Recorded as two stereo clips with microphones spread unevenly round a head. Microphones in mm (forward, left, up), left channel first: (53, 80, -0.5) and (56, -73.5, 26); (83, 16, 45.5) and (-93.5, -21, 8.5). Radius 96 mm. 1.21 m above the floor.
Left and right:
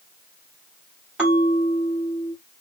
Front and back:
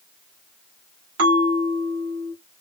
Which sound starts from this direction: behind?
A bell, at 1.2 s.